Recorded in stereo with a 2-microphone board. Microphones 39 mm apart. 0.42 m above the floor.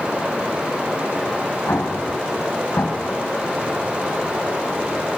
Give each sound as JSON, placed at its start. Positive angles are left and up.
{"t": 0.0, "sound": "running water", "side_deg": -30, "distance_m": 9.0}
{"t": 1.7, "sound": "an explosion", "side_deg": 70, "distance_m": 2.5}